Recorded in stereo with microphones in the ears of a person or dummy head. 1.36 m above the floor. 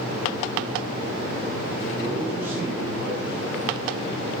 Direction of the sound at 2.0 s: 10° right (ahead or behind).